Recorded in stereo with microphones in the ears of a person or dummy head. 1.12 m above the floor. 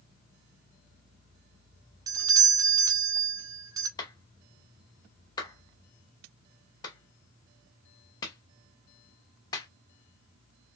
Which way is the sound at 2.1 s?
15° right (ahead or behind).